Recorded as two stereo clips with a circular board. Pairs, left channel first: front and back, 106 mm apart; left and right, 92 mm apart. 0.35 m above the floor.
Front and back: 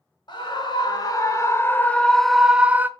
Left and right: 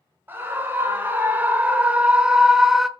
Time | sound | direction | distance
0.3 | a scream | 30° right | 1.4 m